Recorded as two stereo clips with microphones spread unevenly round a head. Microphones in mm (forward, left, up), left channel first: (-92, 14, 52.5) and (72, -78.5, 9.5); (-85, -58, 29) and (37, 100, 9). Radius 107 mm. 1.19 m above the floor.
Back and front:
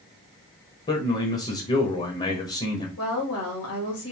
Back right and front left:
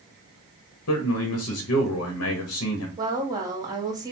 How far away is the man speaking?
About 1.1 m.